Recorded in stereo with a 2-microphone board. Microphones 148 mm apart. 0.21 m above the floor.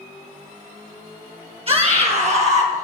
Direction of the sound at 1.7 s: 40° right (ahead or behind).